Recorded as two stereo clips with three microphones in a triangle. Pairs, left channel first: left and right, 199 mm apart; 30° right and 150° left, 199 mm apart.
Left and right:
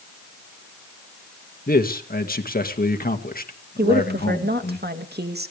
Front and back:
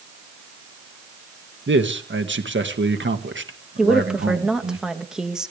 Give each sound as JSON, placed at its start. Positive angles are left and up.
{"t": 1.7, "sound": "a man speaking", "azimuth_deg": 130, "distance_m": 2.0}
{"t": 3.8, "sound": "a woman speaking", "azimuth_deg": -125, "distance_m": 2.0}